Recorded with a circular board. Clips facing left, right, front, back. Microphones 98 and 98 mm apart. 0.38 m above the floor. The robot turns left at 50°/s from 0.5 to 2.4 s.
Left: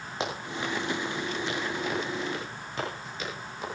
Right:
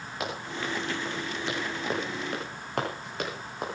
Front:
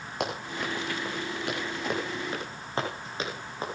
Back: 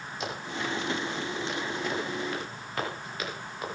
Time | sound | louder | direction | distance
0.2 | running footsteps | left 1 dB, front 2 dB | 25° left | 8.5 m